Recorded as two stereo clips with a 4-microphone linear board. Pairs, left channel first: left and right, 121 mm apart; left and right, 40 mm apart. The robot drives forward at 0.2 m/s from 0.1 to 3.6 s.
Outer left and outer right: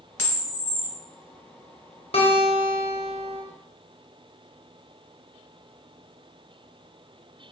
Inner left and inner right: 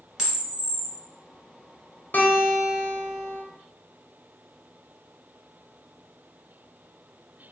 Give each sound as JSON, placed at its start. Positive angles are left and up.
{"t": 0.2, "sound": "a camera shutter", "side_deg": -15, "distance_m": 1.4}
{"t": 2.1, "sound": "a guitar", "side_deg": 50, "distance_m": 0.8}